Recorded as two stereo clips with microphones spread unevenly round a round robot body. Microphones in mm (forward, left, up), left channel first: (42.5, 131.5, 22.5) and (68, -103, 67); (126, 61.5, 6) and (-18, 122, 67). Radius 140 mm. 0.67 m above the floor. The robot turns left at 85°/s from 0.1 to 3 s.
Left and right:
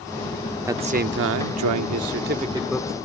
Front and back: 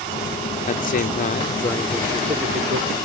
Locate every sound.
0.7 s a man speaking: straight ahead; by 3.0 s 165° left